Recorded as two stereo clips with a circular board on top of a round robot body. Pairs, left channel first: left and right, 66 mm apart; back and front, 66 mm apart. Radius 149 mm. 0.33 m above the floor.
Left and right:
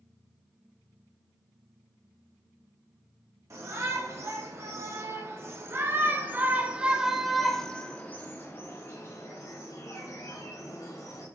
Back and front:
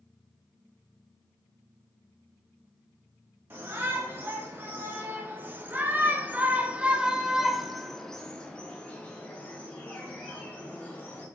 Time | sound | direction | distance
3.5 | a shout | 55° right | 3.5 m